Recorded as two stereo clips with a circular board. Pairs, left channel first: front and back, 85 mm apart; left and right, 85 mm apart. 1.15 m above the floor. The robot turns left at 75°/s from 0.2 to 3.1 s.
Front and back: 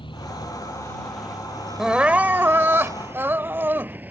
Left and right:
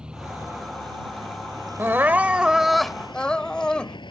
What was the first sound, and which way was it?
A vehicle, 10° right.